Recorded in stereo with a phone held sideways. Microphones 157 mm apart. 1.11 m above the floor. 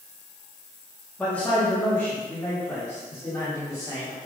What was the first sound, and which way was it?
A man speaking, 10° left (ahead or behind).